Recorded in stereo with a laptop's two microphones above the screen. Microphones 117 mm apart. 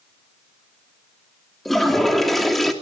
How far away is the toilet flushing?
About 3 m.